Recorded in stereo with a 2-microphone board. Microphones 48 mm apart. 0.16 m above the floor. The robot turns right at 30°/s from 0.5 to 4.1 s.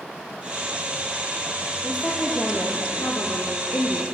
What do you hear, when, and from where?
1.8 s a woman speaking: 25° left, 4 m; by 4.0 s 90° left, 4 m